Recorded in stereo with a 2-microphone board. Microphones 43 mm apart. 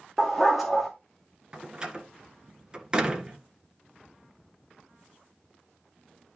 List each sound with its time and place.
0.2 s a dog barking: 5° right (ahead or behind), 2.5 m
1.5 s a door slam: 20° right (ahead or behind), 1.6 m